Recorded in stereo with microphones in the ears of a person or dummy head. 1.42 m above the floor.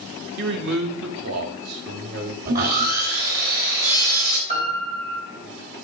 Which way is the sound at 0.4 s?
65° right (ahead or behind).